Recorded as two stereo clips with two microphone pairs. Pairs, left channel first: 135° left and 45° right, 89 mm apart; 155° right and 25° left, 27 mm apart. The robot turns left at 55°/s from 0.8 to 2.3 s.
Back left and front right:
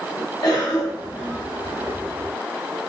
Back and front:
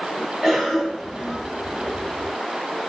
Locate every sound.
0.4 s a cough: 95° left, 1.8 m; by 1.4 s 65° left, 1.8 m